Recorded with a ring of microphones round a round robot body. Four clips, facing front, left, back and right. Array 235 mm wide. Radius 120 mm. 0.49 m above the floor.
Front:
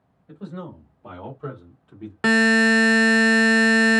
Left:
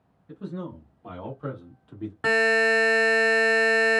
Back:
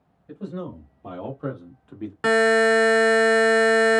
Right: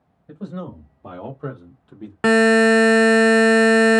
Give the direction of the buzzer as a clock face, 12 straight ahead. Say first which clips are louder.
Right 8 dB, back 1 dB; 3 o'clock.